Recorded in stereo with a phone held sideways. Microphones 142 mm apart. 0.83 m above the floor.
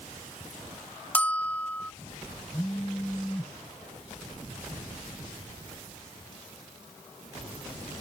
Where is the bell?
10° left (ahead or behind).